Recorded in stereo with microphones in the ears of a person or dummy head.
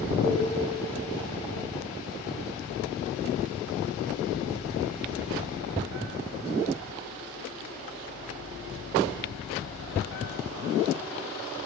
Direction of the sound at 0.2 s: 20° right (ahead or behind).